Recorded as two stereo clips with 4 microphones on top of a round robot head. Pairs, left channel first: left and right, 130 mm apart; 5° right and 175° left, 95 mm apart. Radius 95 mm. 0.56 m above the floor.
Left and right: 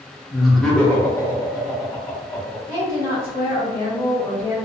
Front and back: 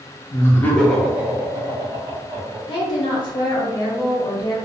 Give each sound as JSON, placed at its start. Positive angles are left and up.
{"t": 0.3, "sound": "laughter", "azimuth_deg": -5, "distance_m": 0.8}
{"t": 2.7, "sound": "a woman speaking", "azimuth_deg": 30, "distance_m": 1.6}